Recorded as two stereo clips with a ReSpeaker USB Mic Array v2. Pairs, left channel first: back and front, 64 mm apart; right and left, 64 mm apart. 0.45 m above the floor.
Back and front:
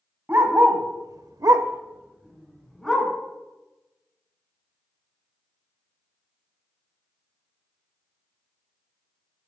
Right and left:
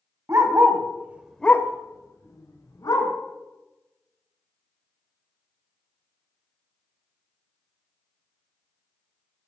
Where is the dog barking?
55° left, 1.4 m; by 3.1 s 90° right, 2 m.